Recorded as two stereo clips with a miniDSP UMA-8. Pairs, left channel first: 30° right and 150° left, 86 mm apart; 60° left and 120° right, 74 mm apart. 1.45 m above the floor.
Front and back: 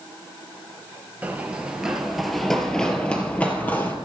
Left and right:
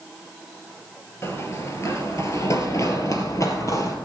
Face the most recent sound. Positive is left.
turn(degrees=35)